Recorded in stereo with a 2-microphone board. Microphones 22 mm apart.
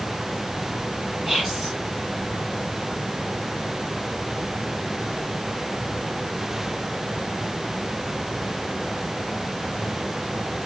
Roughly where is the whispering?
Right.